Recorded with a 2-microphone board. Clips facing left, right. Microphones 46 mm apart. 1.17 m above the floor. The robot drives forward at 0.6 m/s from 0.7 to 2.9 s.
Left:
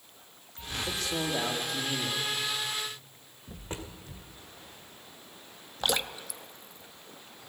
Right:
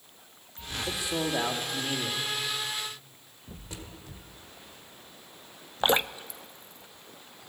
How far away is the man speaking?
About 1.7 m.